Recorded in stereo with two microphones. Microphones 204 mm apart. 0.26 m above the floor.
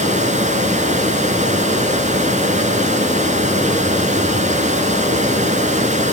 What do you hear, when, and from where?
0.0 s running water: 35° right (ahead or behind), 2 m